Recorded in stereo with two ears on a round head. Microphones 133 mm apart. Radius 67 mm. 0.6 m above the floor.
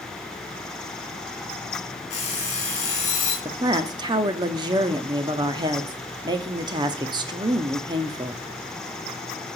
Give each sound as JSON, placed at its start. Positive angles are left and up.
{"t": 2.1, "sound": "an alarm clock", "side_deg": 45, "distance_m": 3.5}
{"t": 3.5, "sound": "a woman speaking", "side_deg": -30, "distance_m": 0.7}